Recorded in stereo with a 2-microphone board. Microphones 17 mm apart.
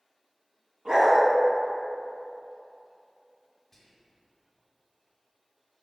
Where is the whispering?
15° left (ahead or behind), 1.3 m.